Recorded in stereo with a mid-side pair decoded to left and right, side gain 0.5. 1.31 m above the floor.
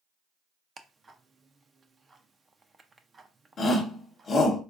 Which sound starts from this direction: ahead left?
A shout, at 3.6 s.